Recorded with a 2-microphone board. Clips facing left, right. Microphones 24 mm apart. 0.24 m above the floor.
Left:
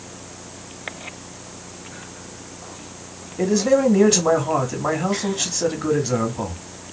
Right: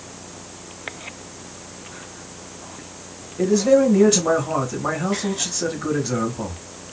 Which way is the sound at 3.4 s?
25° left (ahead or behind).